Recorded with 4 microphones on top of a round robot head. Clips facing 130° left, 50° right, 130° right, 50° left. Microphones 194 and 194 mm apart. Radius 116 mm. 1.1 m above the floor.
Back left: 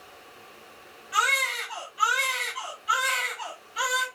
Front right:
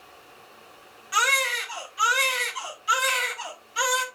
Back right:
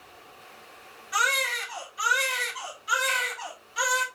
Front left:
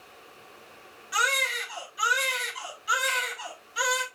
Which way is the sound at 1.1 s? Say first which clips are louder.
Front right 3 dB, even; 10° right.